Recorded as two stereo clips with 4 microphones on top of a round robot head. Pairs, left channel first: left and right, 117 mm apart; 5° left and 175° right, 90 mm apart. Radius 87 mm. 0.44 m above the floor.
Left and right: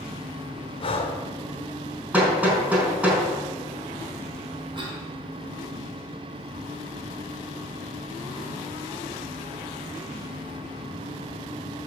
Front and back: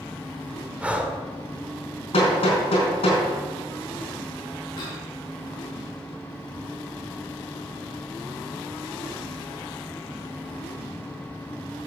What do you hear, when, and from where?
0.8 s breathing: 115° left, 1.7 m
2.1 s hammering: 10° right, 5.5 m
4.8 s a cough: 45° right, 4.5 m